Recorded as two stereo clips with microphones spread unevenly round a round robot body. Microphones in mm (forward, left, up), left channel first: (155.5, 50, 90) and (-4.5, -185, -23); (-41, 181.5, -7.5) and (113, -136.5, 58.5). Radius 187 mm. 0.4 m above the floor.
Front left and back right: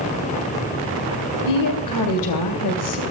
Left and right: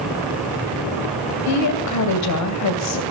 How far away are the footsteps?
I don't hear footsteps.